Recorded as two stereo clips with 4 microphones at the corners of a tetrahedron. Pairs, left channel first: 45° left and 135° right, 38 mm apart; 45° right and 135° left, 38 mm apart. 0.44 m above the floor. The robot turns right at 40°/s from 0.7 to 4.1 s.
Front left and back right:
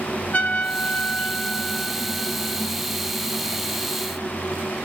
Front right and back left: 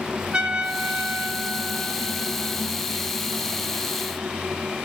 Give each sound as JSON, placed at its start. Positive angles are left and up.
{"t": 0.3, "sound": "a trumpet", "azimuth_deg": 80, "distance_m": 1.2}